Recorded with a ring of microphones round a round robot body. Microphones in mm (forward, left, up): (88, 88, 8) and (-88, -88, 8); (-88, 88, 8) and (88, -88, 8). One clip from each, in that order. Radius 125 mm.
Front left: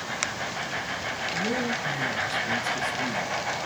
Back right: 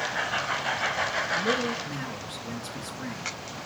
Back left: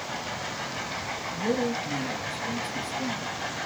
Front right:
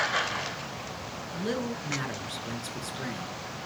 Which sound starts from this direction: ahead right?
A man speaking, at 1.3 s.